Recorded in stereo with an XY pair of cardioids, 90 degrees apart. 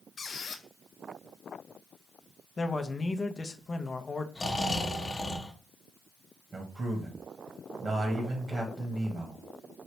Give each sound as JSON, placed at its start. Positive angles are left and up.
{"t": 0.2, "sound": "a squeak", "azimuth_deg": 45, "distance_m": 0.5}
{"t": 2.6, "sound": "a man speaking", "azimuth_deg": 30, "distance_m": 0.6}
{"t": 4.3, "sound": "snoring", "azimuth_deg": 30, "distance_m": 0.9}
{"t": 6.5, "sound": "a man speaking", "azimuth_deg": -45, "distance_m": 1.2}